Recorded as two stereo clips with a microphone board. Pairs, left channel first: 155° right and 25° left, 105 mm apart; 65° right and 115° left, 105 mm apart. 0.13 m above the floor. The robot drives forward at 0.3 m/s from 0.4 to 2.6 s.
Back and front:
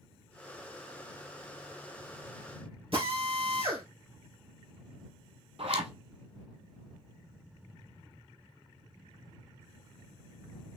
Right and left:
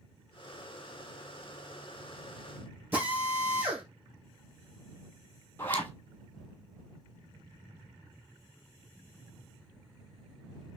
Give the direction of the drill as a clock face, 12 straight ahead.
11 o'clock.